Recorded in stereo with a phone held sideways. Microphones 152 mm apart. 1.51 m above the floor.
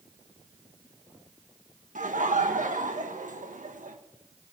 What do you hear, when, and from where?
1.9 s laughter: 65° right (ahead or behind), 1.6 m